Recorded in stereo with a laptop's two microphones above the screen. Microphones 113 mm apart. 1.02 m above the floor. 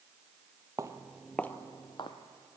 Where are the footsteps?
30° right (ahead or behind), 1.1 m; by 2.2 s 50° left (ahead or behind), 1.5 m.